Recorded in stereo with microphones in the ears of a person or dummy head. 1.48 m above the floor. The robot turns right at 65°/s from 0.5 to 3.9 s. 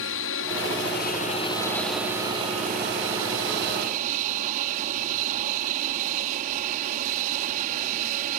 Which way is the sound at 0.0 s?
85° left.